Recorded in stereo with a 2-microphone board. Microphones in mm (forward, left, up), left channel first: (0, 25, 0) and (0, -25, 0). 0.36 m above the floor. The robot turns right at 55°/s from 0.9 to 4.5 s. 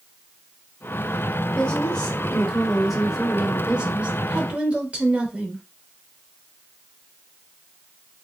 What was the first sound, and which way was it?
A woman speaking, 25° left (ahead or behind).